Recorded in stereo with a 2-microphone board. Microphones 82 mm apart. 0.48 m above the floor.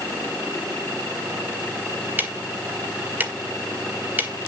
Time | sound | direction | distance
2.2 | ticking | 25° right (ahead or behind) | 1.7 m